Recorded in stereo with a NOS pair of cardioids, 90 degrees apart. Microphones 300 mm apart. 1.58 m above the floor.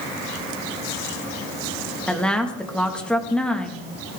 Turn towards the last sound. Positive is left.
turn(degrees=5)